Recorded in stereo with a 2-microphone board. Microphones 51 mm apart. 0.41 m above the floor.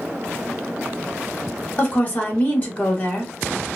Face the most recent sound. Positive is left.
turn(degrees=30)  # may be behind; listen again after turning